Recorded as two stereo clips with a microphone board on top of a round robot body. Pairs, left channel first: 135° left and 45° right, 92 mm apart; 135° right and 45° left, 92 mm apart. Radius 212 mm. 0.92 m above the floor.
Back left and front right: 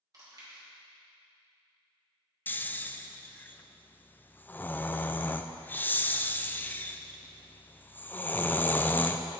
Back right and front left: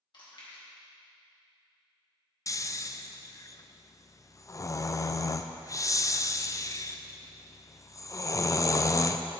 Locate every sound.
0.1 s chewing: 95° right, 2 m
2.5 s snoring: 165° right, 0.6 m